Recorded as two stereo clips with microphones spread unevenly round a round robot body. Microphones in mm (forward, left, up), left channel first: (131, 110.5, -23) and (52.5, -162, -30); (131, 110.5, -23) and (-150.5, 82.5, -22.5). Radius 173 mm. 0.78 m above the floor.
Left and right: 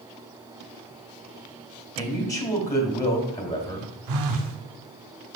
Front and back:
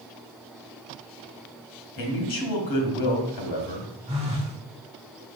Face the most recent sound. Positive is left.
turn(degrees=-100)